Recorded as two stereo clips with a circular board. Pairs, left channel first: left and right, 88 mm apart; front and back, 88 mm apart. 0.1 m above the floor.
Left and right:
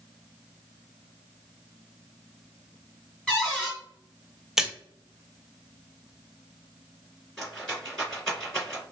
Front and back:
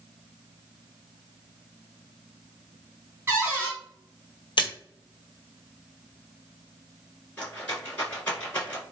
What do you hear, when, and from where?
3.3 s a cupboard door: 155° left, 1.5 m
4.6 s a splash: 5° right, 0.6 m
7.4 s a rattle: 25° left, 1.7 m